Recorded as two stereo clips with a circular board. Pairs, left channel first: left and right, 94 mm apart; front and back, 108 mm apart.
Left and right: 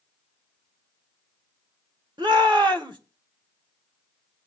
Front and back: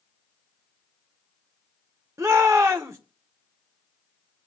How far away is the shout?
About 1.7 m.